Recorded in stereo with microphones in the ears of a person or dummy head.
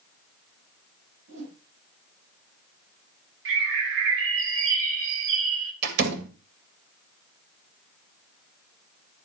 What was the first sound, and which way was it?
A whoosh, 65° right (ahead or behind).